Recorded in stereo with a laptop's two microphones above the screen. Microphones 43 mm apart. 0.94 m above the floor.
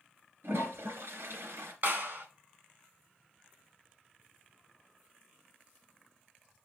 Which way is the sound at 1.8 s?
55° right (ahead or behind).